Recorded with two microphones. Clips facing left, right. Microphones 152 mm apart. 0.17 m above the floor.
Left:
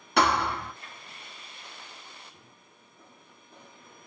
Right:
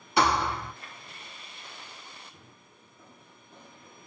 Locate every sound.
0.2 s a thud: 75° left (ahead or behind), 1.4 m